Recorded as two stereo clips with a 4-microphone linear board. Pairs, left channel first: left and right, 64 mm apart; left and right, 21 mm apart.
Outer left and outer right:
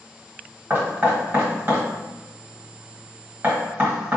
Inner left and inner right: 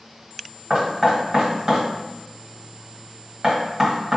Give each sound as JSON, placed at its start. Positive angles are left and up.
{"t": 0.7, "sound": "knocking", "side_deg": -35, "distance_m": 1.3}